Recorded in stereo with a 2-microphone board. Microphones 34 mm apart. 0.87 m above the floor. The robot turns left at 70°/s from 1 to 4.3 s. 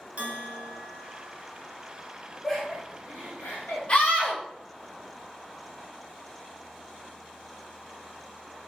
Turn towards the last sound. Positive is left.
turn(degrees=75)  # may be behind; listen again after turning